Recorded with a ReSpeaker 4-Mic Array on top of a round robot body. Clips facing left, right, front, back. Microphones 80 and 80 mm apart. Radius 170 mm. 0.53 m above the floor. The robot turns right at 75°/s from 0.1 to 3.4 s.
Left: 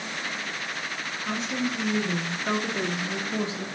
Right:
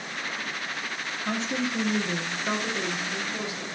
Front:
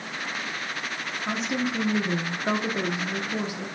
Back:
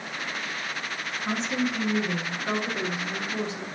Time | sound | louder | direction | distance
1.2 | a woman speaking | even, even | 90° right | 0.8 m